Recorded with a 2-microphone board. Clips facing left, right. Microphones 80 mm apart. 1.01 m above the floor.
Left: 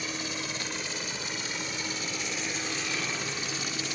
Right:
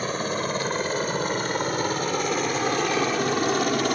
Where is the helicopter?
50° right (ahead or behind); by 4.0 s 65° right (ahead or behind).